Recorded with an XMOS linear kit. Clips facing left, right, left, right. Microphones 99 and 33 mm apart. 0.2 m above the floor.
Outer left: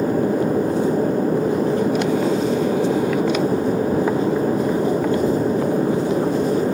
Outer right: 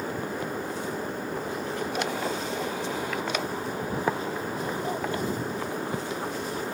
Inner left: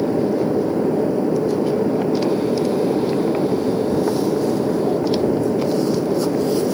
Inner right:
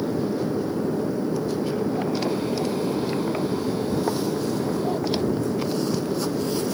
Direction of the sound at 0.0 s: 45° left (ahead or behind).